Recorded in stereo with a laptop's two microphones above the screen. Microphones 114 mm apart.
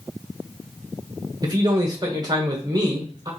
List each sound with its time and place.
1.4 s a man speaking: 35° right (ahead or behind), 1.0 m